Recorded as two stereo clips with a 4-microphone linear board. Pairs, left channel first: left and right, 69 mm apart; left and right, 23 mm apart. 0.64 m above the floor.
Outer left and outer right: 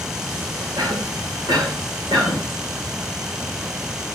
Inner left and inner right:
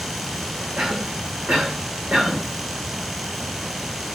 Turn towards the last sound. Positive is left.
turn(degrees=-65)  # may be behind; listen again after turning